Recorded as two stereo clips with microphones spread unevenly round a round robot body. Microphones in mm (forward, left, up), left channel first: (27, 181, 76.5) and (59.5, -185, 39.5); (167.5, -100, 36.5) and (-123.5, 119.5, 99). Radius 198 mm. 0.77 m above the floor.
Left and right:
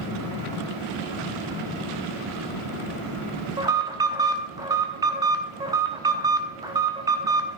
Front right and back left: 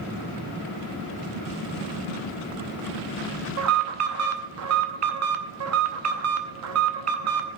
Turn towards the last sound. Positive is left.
turn(degrees=-165)